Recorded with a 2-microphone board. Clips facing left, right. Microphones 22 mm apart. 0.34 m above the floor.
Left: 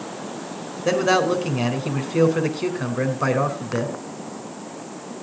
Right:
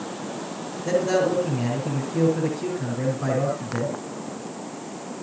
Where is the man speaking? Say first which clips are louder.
Left 3 dB; 55° left (ahead or behind), 3.5 m.